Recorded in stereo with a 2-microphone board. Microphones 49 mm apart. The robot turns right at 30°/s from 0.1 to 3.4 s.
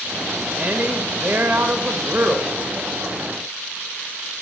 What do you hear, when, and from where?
0.5 s a woman speaking: 120° right, 0.7 m; by 2.6 s 60° right, 0.7 m